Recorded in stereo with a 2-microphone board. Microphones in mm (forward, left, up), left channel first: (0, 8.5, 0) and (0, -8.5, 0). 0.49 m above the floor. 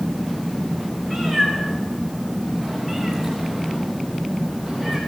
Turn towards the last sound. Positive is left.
turn(degrees=25)  # may be behind; listen again after turning